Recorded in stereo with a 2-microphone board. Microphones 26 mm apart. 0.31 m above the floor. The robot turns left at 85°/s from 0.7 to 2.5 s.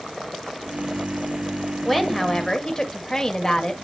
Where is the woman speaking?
5° left (ahead or behind), 1.0 m; by 3.7 s 25° left (ahead or behind), 1.0 m.